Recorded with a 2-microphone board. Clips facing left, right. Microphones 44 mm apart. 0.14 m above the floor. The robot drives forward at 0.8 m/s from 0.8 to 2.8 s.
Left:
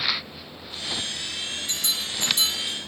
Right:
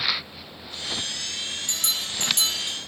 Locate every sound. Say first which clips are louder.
1.7 s a bell: even; 70° right (ahead or behind), 3 m